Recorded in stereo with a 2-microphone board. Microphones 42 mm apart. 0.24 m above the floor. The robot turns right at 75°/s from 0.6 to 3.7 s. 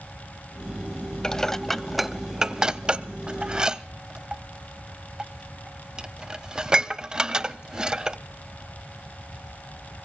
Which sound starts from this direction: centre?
Dishes clattering, at 1.2 s.